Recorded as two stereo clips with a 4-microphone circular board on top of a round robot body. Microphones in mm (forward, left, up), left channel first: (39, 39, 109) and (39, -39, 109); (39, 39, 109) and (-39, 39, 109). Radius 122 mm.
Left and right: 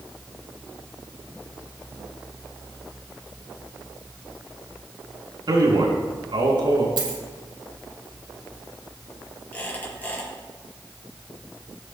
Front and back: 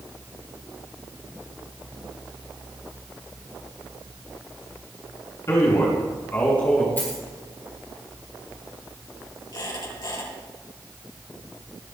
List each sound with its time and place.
5.5 s a man speaking: 60° right, 6 m; by 6.9 s 75° right, 5.5 m
7.0 s a dropped coin: 70° right, 5 m
9.5 s a squeak: 25° left, 6.5 m